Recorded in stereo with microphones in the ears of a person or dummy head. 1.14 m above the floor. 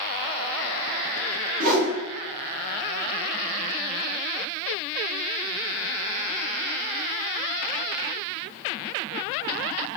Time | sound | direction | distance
1.6 | a whoosh | 45° right (ahead or behind) | 0.7 m